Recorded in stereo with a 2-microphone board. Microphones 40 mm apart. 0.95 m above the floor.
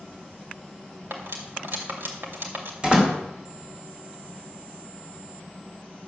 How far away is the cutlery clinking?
About 2.5 m.